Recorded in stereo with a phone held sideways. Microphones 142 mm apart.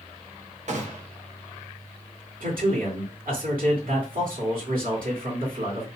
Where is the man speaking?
85° right, 2.5 m.